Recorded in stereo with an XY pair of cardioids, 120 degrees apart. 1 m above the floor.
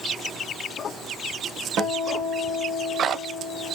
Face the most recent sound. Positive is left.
turn(degrees=-70)